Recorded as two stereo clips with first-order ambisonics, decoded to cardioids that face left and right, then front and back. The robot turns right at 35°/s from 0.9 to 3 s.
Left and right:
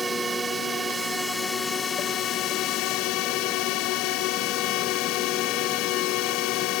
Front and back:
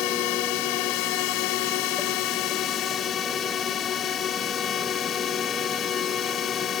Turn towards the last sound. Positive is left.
turn(degrees=55)